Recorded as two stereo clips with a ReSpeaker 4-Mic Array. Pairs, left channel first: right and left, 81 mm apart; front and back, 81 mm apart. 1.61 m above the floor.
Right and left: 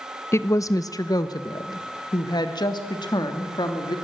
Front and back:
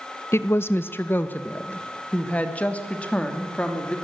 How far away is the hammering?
I don't hear hammering.